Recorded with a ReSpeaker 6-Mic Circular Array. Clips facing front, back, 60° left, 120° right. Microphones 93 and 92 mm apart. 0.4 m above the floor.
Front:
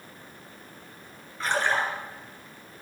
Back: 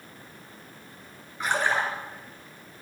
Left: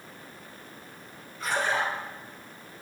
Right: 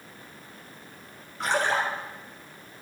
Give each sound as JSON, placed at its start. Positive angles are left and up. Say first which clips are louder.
{"t": 1.4, "sound": "a splash", "louder": "even, right 2 dB", "azimuth_deg": -105, "distance_m": 3.0}